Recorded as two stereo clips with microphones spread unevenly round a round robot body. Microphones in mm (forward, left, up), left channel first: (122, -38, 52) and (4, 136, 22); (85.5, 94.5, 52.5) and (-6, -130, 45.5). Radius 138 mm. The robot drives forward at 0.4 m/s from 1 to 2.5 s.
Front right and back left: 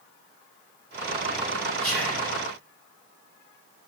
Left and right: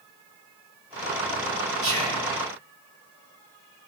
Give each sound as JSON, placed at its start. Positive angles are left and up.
{"t": 1.8, "sound": "whispering", "azimuth_deg": -145, "distance_m": 3.0}